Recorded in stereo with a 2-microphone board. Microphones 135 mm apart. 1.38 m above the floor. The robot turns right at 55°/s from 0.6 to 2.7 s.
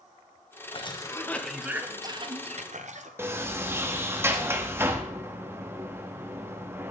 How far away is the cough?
About 0.8 m.